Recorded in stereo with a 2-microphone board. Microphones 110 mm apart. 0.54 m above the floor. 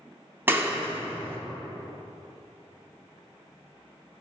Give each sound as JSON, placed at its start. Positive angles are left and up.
{"t": 0.5, "sound": "a clap", "side_deg": -20, "distance_m": 0.6}